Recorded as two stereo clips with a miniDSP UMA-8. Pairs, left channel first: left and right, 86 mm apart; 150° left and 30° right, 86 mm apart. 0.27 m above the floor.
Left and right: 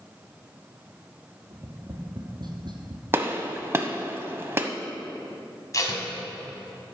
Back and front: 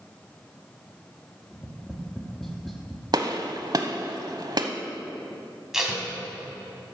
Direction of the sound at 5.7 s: 55° left.